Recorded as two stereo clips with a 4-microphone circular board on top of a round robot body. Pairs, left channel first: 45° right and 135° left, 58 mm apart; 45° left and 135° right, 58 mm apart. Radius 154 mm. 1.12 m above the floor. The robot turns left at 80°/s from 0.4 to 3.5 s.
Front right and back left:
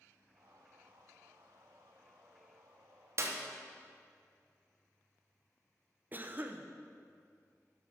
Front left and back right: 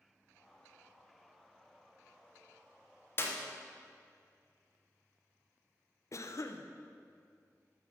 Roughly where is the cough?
Left.